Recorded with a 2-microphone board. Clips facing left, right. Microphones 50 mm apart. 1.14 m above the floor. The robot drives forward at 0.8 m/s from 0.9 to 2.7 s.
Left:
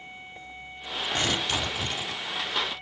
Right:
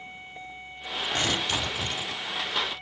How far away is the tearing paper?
About 2 m.